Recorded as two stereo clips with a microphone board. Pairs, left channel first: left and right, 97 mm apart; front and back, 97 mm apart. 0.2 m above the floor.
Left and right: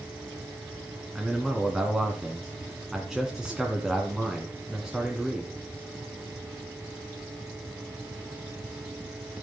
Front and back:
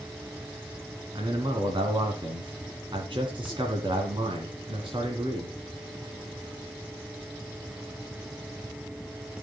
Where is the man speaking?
175° right, 2 m.